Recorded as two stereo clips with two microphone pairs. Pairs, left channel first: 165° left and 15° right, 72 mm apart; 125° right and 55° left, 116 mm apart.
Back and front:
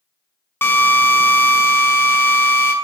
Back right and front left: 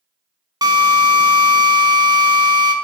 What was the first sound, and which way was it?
A drill, 110° left.